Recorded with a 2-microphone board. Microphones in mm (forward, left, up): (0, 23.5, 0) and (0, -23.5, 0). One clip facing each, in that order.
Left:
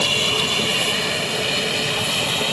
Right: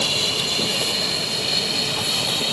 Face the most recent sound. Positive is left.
turn(degrees=35)  # may be behind; listen again after turning